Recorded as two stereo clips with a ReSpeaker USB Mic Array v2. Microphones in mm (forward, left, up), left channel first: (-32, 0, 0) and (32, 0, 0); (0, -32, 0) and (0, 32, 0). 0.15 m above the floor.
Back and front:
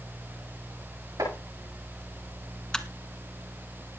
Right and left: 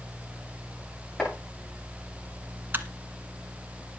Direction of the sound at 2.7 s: 110° left.